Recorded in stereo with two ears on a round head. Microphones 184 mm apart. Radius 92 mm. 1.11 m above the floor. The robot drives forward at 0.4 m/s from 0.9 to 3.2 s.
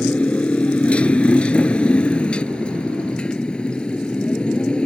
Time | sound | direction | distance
0.0 | a motorcycle | 5° left (ahead or behind) | ?